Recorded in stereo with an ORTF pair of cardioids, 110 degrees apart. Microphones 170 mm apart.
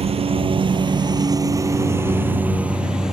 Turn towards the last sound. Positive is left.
turn(degrees=-5)